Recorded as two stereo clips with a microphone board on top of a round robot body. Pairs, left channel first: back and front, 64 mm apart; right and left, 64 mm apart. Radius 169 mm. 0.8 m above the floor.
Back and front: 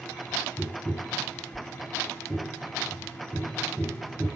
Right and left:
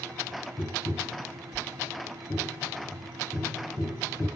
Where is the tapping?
95° right, 0.7 m.